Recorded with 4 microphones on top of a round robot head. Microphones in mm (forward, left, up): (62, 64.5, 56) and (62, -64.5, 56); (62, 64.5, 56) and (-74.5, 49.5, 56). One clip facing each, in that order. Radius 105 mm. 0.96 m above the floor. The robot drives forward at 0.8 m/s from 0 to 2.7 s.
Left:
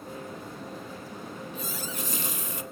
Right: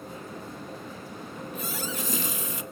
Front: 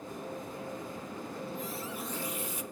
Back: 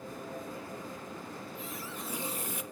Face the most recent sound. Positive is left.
turn(degrees=-135)